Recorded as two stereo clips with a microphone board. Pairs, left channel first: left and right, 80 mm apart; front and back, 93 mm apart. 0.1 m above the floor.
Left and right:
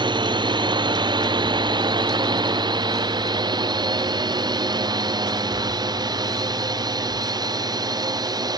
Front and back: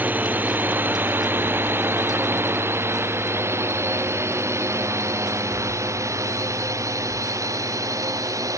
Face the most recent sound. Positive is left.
turn(degrees=-125)